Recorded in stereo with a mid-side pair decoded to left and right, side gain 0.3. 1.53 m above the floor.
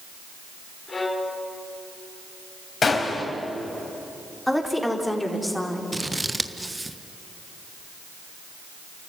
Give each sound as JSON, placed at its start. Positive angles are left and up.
{"t": 0.9, "sound": "a violin", "azimuth_deg": 45, "distance_m": 3.5}
{"t": 2.8, "sound": "a gunshot", "azimuth_deg": 60, "distance_m": 4.0}
{"t": 4.5, "sound": "a woman speaking", "azimuth_deg": 10, "distance_m": 4.0}
{"t": 5.9, "sound": "scissors", "azimuth_deg": -20, "distance_m": 1.4}